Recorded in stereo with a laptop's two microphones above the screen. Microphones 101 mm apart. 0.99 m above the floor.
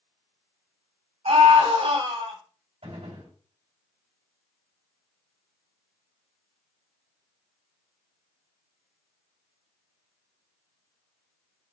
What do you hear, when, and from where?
1.2 s a scream: 70° right (ahead or behind), 3 m
2.8 s a gunshot: 75° right (ahead or behind), 3.5 m